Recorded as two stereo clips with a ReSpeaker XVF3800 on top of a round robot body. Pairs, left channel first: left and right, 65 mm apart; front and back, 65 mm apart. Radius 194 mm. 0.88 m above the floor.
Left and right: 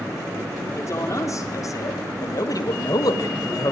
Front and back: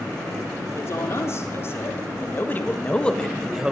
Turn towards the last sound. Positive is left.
turn(degrees=105)